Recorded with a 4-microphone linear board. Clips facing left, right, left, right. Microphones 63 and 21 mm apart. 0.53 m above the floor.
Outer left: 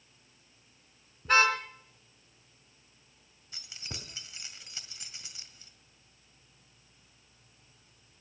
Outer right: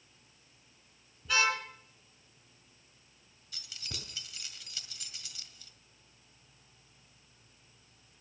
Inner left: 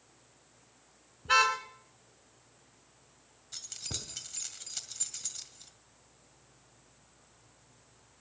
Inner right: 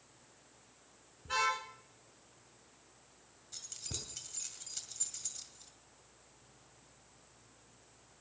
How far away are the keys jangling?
About 1.8 m.